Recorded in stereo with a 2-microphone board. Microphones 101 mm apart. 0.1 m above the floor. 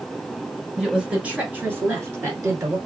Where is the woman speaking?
5° right (ahead or behind), 1.5 m; by 2.8 s 30° right (ahead or behind), 1.6 m.